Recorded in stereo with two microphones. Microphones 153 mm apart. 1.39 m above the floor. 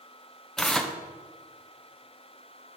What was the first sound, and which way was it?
Tearing paper, 5° left (ahead or behind).